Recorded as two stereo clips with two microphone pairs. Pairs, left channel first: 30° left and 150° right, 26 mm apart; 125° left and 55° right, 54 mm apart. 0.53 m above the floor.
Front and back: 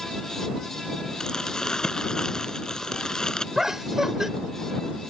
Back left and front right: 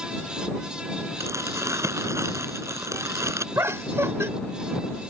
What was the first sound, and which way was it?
Crumpling, 30° right.